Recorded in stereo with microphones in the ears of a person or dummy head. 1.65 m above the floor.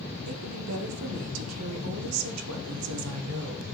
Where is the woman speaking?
85° right, 1.2 m.